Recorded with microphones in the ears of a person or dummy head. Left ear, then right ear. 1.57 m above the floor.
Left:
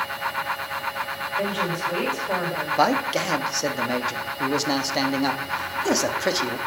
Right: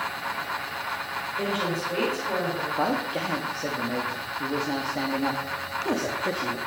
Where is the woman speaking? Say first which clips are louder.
Left 3 dB; 20° left (ahead or behind), 4 m.